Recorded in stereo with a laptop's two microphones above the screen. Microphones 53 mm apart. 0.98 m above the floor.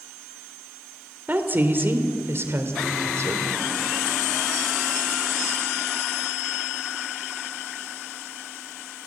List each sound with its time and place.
1.3 s a woman speaking: 35° right (ahead or behind), 3 m; by 3.5 s 60° right (ahead or behind), 3.5 m